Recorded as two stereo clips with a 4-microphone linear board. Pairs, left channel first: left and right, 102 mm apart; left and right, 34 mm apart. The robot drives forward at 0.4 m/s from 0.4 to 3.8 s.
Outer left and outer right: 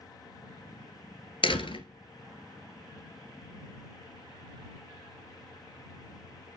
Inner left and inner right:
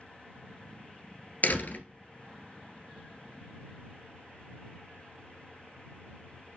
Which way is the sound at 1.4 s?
60° left (ahead or behind).